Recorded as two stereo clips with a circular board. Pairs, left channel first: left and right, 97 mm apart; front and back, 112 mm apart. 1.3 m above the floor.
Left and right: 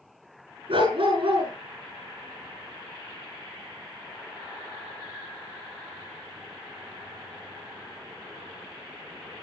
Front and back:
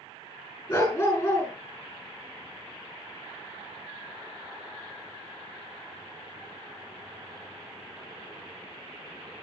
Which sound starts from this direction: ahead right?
A dog barking, at 0.7 s.